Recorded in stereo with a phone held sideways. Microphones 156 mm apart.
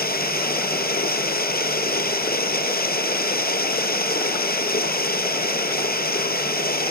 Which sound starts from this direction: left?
Running water, at 0.0 s.